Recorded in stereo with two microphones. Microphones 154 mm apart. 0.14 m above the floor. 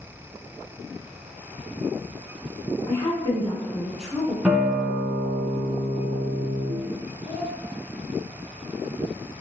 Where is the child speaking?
5° right (ahead or behind), 1.2 m.